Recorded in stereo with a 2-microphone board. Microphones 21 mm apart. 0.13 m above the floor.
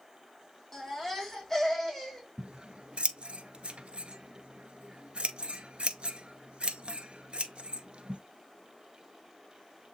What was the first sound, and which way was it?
A baby crying, 15° left (ahead or behind).